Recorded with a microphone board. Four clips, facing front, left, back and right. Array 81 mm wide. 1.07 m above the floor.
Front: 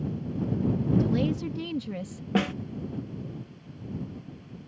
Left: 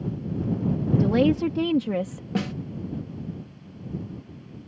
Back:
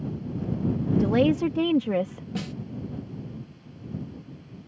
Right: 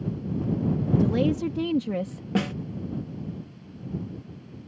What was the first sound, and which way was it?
A woman speaking, 150° left.